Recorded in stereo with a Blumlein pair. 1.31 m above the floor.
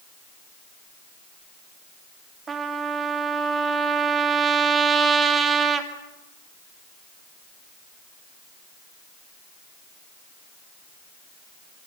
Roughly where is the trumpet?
Ahead.